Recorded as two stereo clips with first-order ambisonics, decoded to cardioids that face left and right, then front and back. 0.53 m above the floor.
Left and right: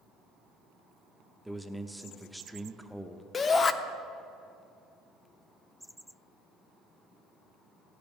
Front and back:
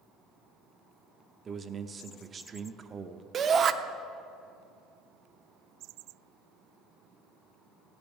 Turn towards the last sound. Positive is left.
turn(degrees=140)